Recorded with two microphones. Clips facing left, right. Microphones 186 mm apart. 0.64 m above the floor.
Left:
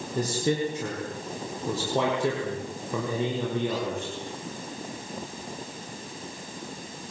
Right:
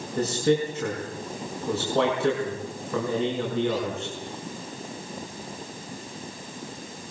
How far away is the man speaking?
About 7 m.